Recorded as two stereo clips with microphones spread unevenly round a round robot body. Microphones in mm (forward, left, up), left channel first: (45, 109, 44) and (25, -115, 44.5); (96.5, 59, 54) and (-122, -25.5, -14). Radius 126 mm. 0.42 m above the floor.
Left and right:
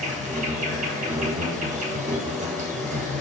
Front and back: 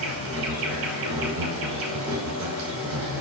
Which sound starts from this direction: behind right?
An insect, at 0.0 s.